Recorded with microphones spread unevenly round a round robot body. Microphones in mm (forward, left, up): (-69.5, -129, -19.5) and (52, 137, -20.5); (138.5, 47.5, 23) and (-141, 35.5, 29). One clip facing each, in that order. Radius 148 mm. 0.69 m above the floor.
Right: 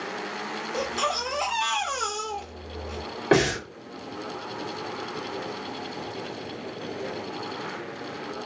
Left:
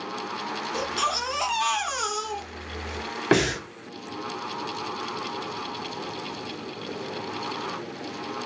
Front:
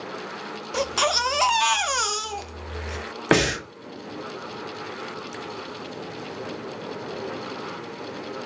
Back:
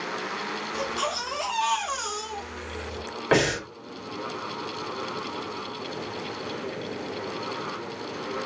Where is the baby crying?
5° right, 0.6 m.